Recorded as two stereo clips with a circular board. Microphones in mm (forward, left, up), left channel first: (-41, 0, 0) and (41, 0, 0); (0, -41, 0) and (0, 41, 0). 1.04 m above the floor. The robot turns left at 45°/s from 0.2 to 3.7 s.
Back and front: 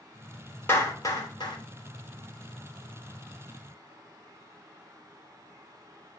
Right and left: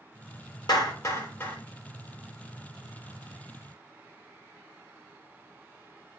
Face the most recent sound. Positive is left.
turn(degrees=105)